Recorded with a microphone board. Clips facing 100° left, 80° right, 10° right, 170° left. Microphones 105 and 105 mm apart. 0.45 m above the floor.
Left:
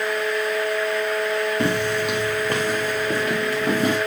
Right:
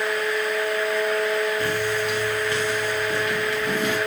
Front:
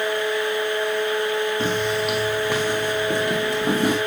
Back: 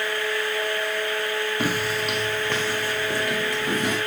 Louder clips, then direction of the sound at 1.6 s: Left 2 dB, front 3 dB; 95° left.